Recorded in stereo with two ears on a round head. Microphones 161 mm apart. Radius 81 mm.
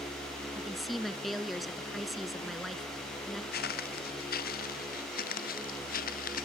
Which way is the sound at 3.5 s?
60° left (ahead or behind).